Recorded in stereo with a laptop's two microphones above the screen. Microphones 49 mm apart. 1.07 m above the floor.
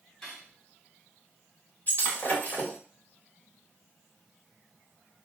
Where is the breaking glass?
40° left (ahead or behind), 1.0 m.